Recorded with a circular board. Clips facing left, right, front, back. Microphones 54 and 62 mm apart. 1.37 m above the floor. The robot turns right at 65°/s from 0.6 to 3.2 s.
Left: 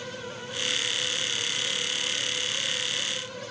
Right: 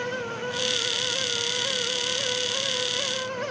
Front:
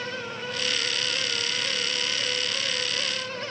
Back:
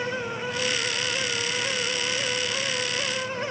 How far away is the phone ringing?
No phone ringing in this recording.